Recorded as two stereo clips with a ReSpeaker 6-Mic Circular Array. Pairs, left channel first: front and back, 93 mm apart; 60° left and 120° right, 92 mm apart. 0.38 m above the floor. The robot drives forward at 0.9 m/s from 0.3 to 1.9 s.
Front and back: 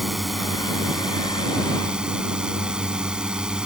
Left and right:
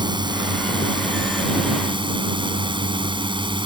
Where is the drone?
90° right; by 3.7 s 100° right.